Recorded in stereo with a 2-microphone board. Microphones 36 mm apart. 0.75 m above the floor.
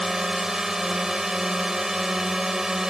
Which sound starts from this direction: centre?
A drone, at 0.0 s.